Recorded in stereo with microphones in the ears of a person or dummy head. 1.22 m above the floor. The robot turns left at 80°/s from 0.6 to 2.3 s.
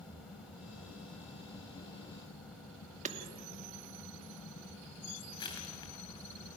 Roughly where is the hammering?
Right.